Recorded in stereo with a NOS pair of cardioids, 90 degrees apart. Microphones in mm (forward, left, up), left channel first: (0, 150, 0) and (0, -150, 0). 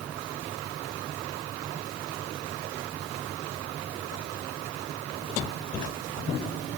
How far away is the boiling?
No boiling in this recording.